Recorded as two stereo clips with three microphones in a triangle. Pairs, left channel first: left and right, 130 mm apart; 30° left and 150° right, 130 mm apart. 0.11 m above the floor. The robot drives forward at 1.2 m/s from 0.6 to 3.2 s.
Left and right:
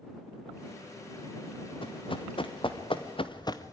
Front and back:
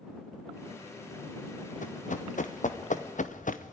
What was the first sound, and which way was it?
Running footsteps, 40° left.